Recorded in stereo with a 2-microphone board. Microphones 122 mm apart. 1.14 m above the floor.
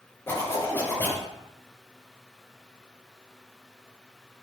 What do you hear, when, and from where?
0.3 s a zipper: 20° left (ahead or behind), 3 m